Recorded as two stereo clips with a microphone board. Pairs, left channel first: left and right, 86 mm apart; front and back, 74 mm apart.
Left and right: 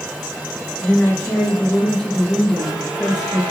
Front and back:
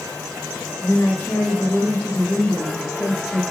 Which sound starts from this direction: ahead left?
A woman speaking, at 0.8 s.